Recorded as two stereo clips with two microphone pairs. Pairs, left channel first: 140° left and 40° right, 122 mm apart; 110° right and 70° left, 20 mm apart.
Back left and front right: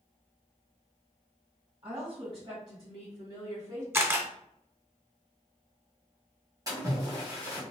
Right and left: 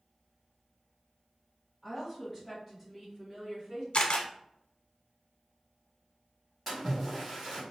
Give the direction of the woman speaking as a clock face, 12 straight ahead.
1 o'clock.